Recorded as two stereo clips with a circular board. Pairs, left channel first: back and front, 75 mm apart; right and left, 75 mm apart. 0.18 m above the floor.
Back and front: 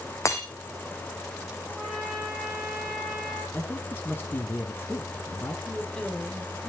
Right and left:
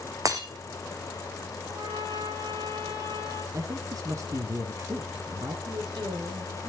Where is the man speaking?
120° left, 3 m.